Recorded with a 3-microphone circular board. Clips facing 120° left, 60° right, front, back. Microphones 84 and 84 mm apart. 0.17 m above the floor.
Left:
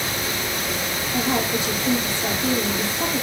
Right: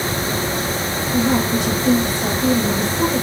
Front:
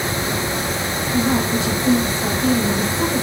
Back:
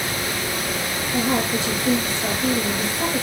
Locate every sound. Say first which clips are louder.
1.1 s a woman speaking: right 5 dB, front 3 dB; 65° right, 5 m